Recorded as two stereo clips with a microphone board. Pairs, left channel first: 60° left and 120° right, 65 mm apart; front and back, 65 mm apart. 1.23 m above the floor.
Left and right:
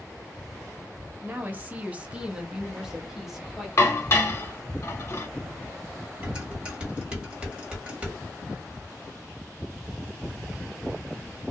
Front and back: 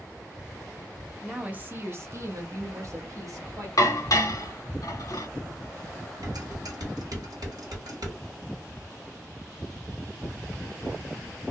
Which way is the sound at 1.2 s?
115° right.